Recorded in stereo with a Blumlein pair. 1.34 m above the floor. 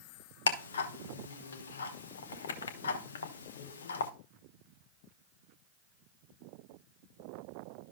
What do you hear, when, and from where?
0.5 s ticking: 65° left, 1.0 m